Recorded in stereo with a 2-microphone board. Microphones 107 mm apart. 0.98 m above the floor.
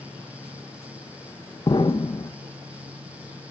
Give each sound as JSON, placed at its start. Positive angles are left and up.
{"t": 1.7, "sound": "an explosion", "side_deg": 45, "distance_m": 1.2}